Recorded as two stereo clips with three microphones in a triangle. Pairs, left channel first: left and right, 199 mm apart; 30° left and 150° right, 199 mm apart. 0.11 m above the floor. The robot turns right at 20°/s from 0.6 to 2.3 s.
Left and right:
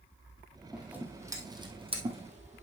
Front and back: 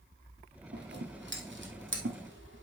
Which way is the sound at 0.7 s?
175° right.